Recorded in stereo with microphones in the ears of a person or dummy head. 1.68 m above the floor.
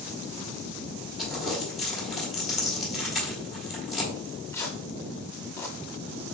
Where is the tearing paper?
15° left (ahead or behind), 0.6 m.